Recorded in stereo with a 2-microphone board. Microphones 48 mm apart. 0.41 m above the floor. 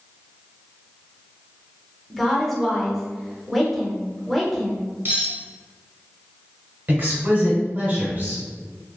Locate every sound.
2.1 s a woman speaking: centre (ahead or behind), 0.8 m
5.0 s cutlery clinking: 50° right (ahead or behind), 1.0 m
6.9 s a woman speaking: 40° right (ahead or behind), 1.3 m